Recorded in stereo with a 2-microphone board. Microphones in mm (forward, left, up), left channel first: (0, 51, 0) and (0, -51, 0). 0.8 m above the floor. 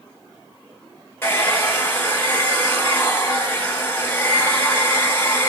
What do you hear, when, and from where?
1.2 s a hair dryer: 20° left (ahead or behind), 1.6 m